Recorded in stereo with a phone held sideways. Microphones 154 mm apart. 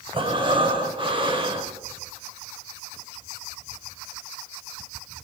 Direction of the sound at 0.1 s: 35° right (ahead or behind).